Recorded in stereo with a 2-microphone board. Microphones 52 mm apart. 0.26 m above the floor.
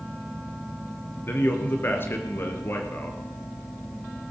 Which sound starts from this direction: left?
A man speaking, at 1.3 s.